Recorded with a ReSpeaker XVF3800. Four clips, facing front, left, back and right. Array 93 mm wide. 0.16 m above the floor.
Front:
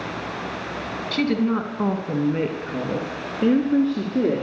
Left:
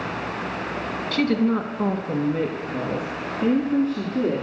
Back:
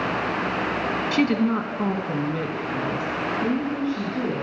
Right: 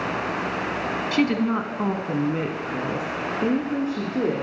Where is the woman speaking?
135° right, 1.0 m; by 4.4 s 15° right, 2.0 m.